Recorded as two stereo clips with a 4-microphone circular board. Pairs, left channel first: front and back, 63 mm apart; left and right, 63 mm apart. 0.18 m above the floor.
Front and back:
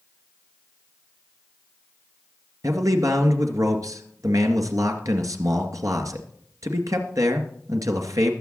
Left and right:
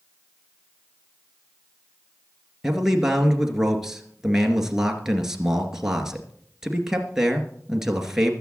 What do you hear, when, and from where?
2.6 s a man speaking: 170° right, 2.5 m